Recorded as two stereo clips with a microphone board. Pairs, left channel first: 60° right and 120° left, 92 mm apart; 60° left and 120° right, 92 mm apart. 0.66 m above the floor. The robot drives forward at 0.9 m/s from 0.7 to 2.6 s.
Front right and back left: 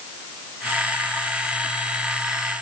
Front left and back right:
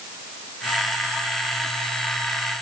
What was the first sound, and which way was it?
Only background noise.